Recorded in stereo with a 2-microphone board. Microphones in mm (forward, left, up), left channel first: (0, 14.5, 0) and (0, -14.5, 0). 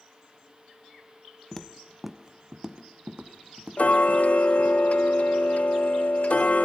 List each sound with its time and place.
1.5 s footsteps: 20° left (ahead or behind), 0.8 m; by 4.8 s 60° right (ahead or behind), 1.9 m
3.8 s ticking: 55° left (ahead or behind), 0.6 m